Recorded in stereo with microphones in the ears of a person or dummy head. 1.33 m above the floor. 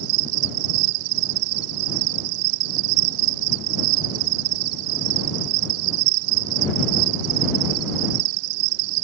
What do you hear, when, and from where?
0.0 s an insect: 80° right